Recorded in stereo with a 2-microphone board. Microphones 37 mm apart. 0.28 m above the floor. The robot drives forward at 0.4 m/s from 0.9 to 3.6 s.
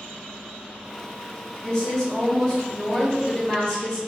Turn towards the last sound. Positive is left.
turn(degrees=20)  # may be behind; listen again after turning